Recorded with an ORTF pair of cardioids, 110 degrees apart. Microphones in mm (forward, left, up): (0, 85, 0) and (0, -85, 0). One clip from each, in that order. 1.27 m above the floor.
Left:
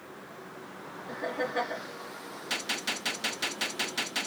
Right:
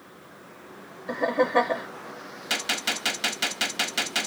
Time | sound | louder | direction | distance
1.1 | laughter | right 10 dB | 55° right | 1.0 m
2.5 | a gunshot | right 5 dB | 35° right | 1.2 m